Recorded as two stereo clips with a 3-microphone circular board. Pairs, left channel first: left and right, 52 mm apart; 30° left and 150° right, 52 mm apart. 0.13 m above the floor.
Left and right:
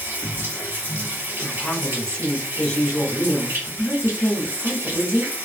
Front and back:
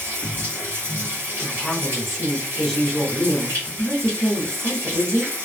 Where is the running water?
120° right, 1.9 m.